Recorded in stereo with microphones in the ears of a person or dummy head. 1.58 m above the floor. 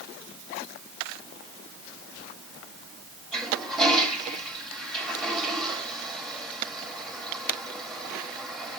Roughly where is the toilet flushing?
Centre.